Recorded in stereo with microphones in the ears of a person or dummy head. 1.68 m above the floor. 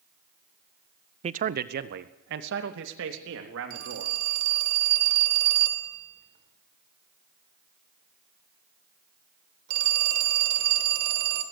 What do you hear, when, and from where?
1.2 s a man speaking: 35° right (ahead or behind), 0.7 m; by 4.2 s 70° right (ahead or behind), 4.5 m
3.7 s a phone ringing: 55° right (ahead or behind), 3 m